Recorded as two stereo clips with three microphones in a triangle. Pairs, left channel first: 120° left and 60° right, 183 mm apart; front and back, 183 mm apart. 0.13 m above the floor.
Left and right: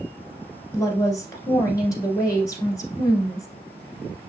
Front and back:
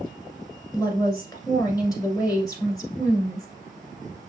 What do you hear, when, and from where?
0.7 s a woman speaking: 60° left, 1.5 m